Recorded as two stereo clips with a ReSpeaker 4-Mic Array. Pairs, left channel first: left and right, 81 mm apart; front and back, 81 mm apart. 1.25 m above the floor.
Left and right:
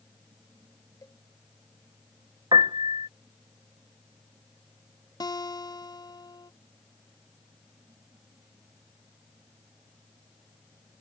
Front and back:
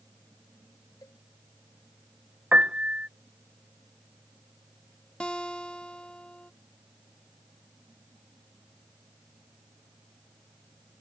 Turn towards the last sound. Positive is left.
turn(degrees=75)